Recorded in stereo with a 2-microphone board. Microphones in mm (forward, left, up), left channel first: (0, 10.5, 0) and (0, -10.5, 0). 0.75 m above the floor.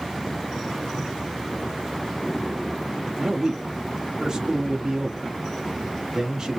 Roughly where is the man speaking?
Right.